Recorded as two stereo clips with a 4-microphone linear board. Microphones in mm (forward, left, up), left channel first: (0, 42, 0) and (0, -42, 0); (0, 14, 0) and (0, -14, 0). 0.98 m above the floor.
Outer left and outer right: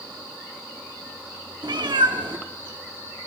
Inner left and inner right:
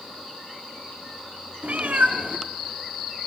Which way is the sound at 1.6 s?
60° right (ahead or behind).